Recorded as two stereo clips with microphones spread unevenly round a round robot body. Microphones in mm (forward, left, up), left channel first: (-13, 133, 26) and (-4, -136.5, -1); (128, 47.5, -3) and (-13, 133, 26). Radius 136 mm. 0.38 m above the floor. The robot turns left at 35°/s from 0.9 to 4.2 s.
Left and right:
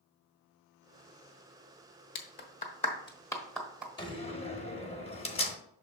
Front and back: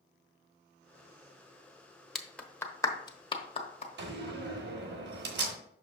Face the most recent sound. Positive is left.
turn(degrees=160)